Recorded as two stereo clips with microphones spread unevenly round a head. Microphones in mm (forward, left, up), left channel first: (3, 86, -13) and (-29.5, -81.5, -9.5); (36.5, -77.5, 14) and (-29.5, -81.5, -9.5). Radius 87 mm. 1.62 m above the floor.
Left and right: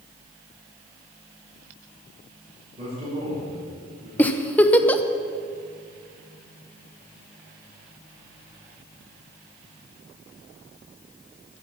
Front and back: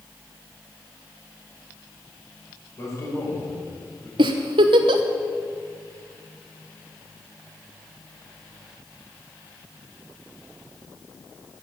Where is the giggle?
160° left, 0.9 m.